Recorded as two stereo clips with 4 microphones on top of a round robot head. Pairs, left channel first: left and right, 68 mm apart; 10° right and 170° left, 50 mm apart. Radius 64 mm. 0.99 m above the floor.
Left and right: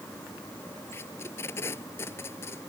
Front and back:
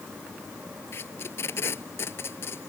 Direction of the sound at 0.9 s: 30° left.